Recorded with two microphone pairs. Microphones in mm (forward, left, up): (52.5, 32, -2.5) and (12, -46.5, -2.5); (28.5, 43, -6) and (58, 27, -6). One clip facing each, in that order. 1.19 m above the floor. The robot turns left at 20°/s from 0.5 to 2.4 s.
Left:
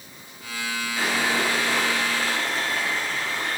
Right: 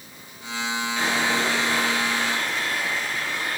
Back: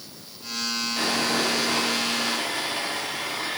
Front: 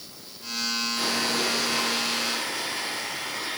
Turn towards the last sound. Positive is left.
turn(degrees=115)